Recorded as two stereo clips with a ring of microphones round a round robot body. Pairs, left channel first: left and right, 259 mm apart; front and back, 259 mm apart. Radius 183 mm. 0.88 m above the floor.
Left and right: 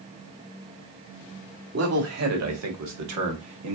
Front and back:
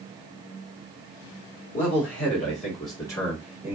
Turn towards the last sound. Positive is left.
turn(degrees=-95)